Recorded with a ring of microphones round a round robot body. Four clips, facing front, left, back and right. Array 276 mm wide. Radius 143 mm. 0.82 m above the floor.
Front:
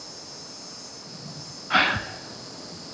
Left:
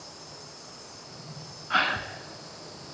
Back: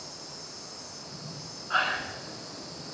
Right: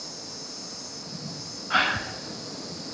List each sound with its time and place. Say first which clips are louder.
0.0 s an insect: right 4 dB, front 1 dB; 90° right, 6 m
1.7 s a gasp: right 1 dB, front 5 dB; straight ahead, 1.8 m